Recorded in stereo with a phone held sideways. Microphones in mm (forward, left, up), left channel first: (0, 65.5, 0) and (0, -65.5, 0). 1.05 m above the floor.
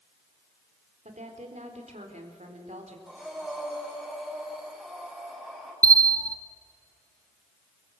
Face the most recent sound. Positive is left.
turn(degrees=-30)  # may be behind; listen again after turning